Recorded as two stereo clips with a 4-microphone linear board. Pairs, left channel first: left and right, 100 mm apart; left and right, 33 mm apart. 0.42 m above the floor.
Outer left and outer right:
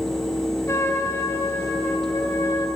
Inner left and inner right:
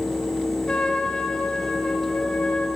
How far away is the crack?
I don't hear a crack.